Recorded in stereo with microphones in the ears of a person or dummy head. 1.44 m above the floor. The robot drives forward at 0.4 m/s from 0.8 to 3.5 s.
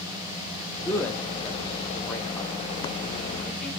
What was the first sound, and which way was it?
A man speaking, 10° left (ahead or behind).